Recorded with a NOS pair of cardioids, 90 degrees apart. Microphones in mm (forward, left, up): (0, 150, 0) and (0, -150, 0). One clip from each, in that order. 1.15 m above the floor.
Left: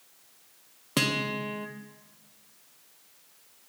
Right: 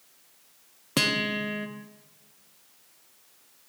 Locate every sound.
1.0 s a guitar: 5° right, 0.9 m